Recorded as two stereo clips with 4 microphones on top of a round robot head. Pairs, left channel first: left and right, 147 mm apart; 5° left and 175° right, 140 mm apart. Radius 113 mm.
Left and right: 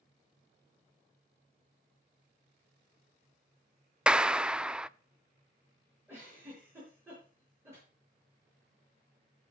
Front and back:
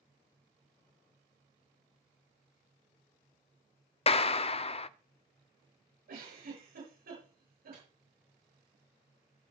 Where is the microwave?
165° right, 8.5 m.